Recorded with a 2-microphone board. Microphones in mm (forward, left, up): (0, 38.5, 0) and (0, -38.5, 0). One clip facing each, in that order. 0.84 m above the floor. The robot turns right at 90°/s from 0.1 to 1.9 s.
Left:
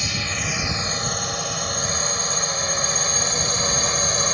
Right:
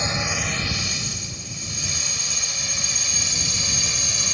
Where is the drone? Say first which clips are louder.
Right 2 dB; 30° right (ahead or behind); by 4.3 s 45° left (ahead or behind).